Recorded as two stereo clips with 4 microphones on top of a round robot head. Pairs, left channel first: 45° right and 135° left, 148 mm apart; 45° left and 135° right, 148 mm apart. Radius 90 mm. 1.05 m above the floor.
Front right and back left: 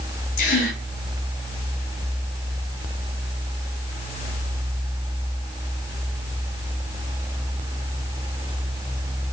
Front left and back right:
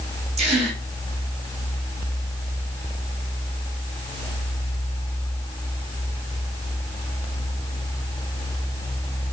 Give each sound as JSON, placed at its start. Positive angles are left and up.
{"t": 0.4, "sound": "a gasp", "azimuth_deg": -90, "distance_m": 4.5}